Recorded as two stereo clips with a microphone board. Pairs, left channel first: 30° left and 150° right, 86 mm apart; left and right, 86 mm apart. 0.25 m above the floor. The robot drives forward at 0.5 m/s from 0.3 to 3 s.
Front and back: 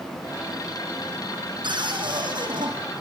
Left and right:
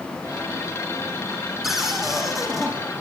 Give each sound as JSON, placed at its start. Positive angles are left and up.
{"t": 1.6, "sound": "a cupboard door", "azimuth_deg": -175, "distance_m": 5.5}